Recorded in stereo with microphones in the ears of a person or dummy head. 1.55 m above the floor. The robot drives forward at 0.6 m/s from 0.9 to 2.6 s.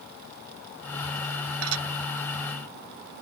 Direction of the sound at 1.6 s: 85° right.